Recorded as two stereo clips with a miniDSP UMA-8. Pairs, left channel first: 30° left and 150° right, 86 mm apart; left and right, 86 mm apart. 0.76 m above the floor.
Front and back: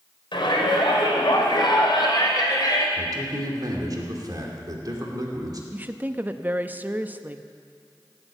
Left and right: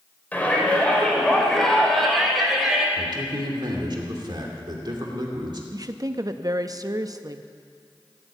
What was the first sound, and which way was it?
A shout, 20° left.